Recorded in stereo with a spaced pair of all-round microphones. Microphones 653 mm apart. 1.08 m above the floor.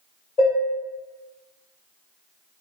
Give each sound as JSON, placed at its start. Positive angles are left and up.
{"t": 0.4, "sound": "dishes clattering", "side_deg": 70, "distance_m": 1.3}